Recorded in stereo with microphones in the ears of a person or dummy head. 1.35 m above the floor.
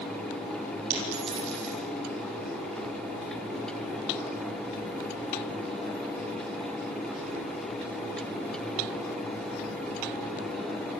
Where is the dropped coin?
45° right (ahead or behind), 7 m.